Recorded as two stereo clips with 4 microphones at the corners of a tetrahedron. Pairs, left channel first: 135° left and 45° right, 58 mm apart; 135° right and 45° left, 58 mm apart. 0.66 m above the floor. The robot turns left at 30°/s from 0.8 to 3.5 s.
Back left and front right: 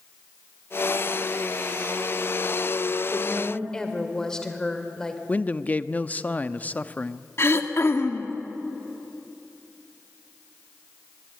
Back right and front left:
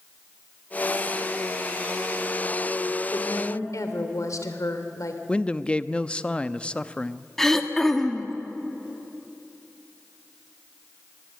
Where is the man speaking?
170° left, 0.6 m.